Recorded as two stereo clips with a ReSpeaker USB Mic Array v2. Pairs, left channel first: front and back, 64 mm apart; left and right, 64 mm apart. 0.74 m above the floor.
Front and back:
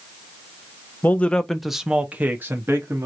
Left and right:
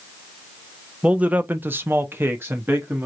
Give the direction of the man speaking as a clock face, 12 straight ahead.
1 o'clock.